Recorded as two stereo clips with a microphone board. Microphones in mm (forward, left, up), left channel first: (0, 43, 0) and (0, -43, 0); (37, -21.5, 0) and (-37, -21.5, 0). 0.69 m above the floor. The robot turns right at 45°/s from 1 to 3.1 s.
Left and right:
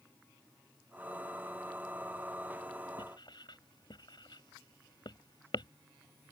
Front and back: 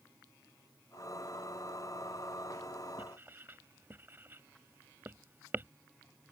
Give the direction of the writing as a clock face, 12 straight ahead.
8 o'clock.